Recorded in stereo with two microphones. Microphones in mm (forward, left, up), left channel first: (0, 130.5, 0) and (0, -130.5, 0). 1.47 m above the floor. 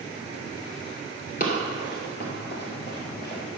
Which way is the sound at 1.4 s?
35° left (ahead or behind).